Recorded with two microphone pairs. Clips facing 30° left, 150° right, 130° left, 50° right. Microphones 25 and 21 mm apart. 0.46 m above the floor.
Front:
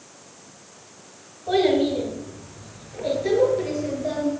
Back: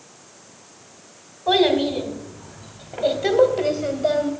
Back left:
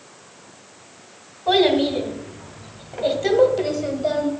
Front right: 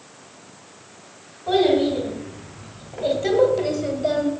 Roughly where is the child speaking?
Behind.